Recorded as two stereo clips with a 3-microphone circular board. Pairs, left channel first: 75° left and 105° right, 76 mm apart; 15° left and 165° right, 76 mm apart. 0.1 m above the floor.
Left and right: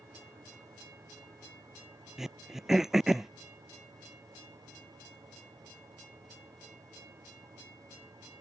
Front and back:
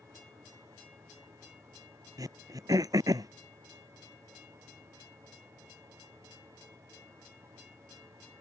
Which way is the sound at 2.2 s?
170° left.